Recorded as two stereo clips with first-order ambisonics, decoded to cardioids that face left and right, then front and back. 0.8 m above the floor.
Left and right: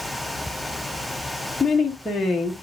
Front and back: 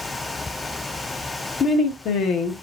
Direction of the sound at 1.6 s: 10° left.